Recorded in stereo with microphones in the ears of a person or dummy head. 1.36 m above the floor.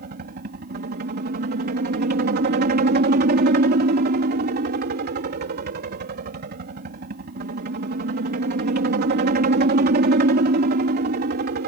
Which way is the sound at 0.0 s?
50° right (ahead or behind).